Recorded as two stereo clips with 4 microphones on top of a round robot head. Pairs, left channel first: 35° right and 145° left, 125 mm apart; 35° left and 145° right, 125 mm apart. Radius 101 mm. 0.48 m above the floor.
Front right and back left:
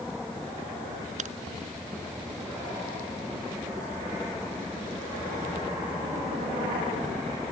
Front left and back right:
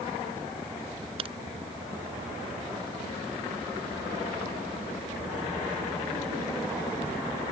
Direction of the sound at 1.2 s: 170° left.